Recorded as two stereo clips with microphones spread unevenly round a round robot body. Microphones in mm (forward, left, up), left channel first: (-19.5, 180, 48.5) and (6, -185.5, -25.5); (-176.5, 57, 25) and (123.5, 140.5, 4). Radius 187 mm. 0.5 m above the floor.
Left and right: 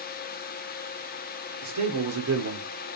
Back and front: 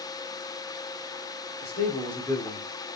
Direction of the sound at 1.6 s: 105° right.